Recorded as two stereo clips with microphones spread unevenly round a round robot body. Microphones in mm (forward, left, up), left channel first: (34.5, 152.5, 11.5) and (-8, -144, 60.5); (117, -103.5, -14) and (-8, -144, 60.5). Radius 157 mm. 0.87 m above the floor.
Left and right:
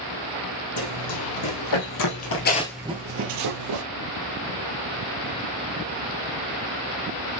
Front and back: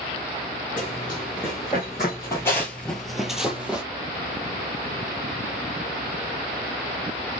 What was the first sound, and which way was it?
Running footsteps, 105° left.